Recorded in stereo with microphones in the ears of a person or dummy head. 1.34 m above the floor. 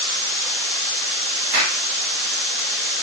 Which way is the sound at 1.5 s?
55° right (ahead or behind).